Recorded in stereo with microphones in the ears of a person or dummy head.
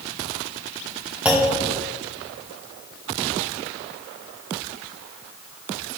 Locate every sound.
1.2 s a clunk: 5° right (ahead or behind), 1.0 m